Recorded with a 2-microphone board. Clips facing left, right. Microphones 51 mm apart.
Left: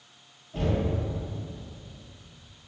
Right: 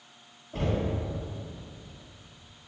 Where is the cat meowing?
No cat meowing in this recording.